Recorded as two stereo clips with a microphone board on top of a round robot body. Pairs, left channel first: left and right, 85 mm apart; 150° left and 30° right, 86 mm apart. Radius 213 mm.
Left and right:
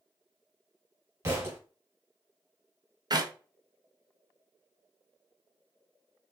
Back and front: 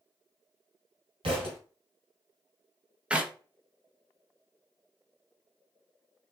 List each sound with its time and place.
1.2 s a thud: 30° right, 1.4 m
3.1 s a clap: 105° right, 0.9 m